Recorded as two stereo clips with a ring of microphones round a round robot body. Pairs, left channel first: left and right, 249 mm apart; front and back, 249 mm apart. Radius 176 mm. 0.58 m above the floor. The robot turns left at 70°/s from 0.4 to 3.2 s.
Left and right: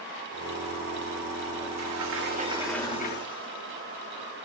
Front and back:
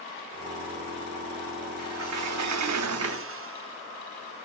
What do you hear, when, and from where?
1.8 s a sliding door: 115° right, 0.8 m; by 4.5 s 145° left, 0.8 m